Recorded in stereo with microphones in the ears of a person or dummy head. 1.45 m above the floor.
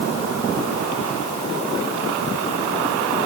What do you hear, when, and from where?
Only background noise.